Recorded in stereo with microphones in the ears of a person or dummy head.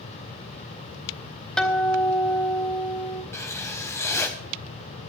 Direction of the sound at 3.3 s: 10° left (ahead or behind).